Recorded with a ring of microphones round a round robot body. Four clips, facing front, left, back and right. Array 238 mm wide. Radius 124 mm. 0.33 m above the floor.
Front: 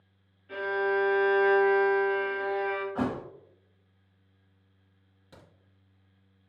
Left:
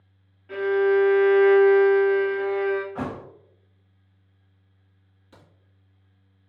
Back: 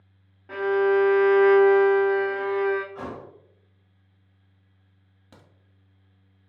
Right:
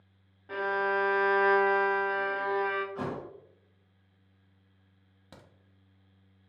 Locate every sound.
0.5 s a violin: 155° right, 0.8 m
3.0 s a thud: 45° left, 0.6 m
5.3 s a crack: 115° right, 1.3 m